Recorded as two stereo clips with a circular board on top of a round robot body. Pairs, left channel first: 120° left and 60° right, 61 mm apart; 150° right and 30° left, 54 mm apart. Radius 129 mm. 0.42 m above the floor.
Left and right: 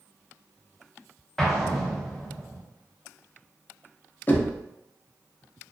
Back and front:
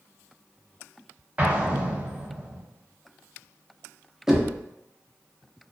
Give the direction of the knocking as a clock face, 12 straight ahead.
9 o'clock.